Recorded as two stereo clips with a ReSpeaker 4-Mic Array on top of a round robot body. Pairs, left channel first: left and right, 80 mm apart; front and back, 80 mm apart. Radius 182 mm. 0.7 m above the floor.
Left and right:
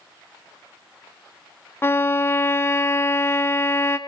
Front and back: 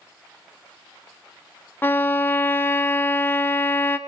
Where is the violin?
50° left, 1.0 m.